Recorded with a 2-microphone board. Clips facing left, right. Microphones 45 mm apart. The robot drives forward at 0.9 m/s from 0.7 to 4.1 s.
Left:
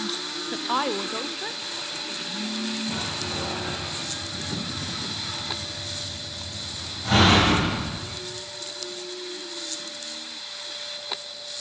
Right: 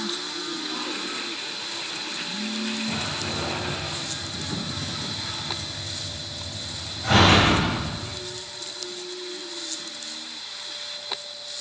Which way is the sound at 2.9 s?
70° right (ahead or behind).